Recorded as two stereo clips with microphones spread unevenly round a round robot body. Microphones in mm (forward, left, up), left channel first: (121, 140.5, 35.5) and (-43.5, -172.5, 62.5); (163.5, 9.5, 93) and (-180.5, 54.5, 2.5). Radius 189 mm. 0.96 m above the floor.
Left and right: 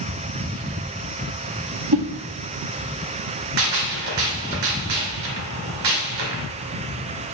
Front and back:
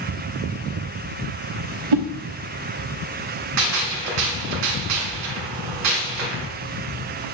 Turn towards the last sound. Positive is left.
turn(degrees=-150)